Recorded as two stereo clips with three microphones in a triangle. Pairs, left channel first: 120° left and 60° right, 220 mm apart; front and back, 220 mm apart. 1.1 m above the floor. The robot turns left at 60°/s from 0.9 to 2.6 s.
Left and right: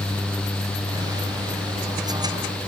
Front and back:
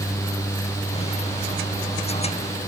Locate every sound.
Only background noise.